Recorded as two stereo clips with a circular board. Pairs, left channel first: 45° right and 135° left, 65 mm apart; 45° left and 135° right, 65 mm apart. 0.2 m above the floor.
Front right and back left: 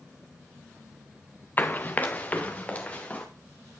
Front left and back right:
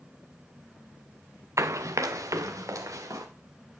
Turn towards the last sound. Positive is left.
turn(degrees=-110)